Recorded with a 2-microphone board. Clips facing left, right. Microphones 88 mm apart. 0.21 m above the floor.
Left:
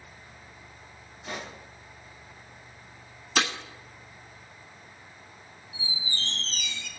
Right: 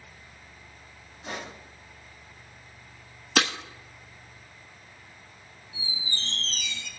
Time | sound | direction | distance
1.2 | a pop | 50° right (ahead or behind) | 6 m
3.4 | breaking glass | 65° right (ahead or behind) | 1.5 m
5.7 | a squeak | 35° right (ahead or behind) | 4 m